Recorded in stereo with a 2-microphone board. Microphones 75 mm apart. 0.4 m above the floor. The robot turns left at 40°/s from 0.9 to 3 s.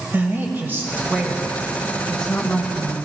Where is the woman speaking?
145° right, 1.8 m; by 3.0 s 135° left, 1.8 m.